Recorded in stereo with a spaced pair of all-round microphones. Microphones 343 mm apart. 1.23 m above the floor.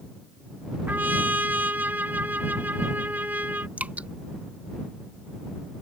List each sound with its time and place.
0.9 s a trumpet: 5° right (ahead or behind)
3.8 s dripping: 5° right (ahead or behind)